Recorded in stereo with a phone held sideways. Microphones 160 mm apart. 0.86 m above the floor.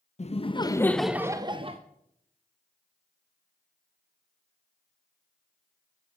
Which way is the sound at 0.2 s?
45° left (ahead or behind).